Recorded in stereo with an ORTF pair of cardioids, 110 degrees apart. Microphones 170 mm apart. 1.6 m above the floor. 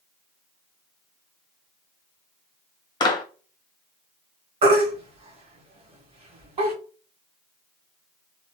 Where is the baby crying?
40° right, 1.2 m.